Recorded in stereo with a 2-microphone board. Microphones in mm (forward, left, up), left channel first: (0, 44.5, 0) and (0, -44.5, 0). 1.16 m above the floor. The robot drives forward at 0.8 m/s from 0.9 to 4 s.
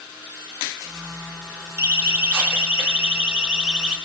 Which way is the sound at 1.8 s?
30° right (ahead or behind).